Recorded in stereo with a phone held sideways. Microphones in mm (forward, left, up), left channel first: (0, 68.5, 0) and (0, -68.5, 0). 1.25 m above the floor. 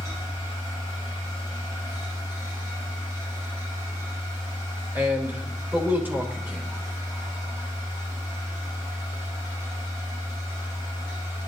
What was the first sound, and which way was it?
A machine running, 20° right (ahead or behind).